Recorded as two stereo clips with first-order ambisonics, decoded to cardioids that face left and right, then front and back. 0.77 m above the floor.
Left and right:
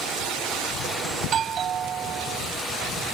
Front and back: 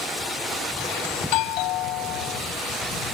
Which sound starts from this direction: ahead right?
A doorbell, at 1.2 s.